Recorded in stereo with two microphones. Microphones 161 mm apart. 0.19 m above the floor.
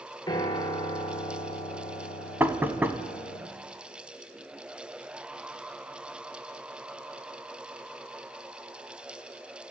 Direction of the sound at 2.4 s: 10° right (ahead or behind).